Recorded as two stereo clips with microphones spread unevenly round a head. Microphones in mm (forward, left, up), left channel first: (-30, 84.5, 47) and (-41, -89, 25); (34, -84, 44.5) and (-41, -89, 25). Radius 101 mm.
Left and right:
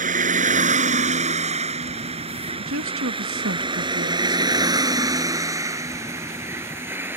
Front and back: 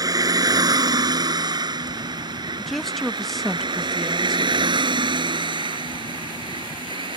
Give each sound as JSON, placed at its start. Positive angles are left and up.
{"t": 0.0, "sound": "a vehicle", "azimuth_deg": -140}
{"t": 2.6, "sound": "a woman speaking", "azimuth_deg": -80}